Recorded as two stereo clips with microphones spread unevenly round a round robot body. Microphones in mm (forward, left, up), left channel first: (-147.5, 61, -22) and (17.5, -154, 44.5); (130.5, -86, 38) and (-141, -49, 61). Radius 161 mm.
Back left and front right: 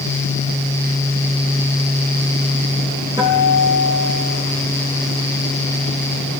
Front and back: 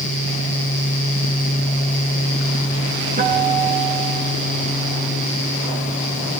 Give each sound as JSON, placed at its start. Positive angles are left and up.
{"t": 3.2, "sound": "a guitar", "azimuth_deg": -130, "distance_m": 4.5}